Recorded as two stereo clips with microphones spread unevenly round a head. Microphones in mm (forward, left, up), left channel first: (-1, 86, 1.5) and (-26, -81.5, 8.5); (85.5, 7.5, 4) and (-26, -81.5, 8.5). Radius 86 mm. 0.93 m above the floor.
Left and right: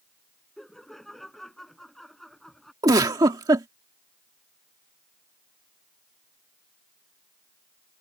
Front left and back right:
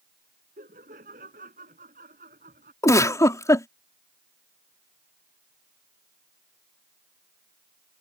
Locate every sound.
0.6 s laughter: 170° left
2.8 s a giggle: 30° right